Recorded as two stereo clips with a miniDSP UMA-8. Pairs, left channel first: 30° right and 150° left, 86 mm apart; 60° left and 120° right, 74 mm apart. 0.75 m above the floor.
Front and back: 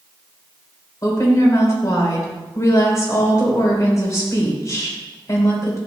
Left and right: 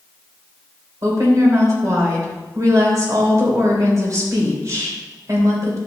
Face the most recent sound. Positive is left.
turn(degrees=-80)